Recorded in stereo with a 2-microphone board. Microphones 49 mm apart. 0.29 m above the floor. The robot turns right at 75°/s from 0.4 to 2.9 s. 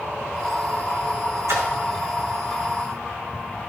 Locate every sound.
1.5 s a splash: 85° right, 3 m; by 1.7 s 80° right, 3 m